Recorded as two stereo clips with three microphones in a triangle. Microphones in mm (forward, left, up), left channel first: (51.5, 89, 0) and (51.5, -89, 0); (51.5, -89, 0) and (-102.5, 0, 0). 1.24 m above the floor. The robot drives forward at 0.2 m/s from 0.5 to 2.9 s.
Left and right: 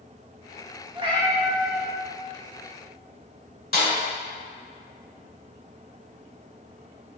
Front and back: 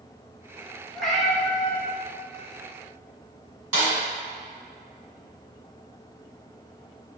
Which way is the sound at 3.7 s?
110° left.